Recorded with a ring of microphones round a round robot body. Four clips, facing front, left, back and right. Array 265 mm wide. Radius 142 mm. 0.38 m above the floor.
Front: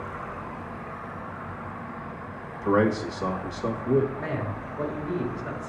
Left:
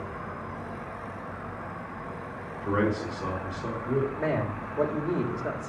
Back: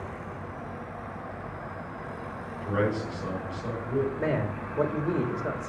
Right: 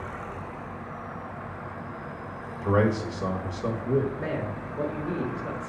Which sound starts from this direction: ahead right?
A man speaking, at 2.6 s.